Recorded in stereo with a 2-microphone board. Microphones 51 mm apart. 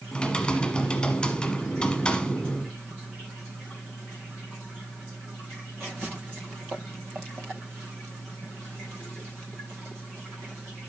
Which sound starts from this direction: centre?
Typing on a keyboard, at 0.1 s.